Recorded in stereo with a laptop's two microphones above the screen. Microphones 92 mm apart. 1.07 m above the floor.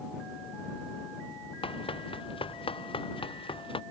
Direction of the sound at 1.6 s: 80° left.